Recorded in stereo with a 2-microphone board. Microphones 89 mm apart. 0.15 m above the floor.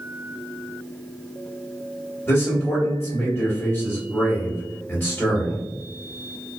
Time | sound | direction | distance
2.3 | a man speaking | 25° left (ahead or behind) | 1.9 m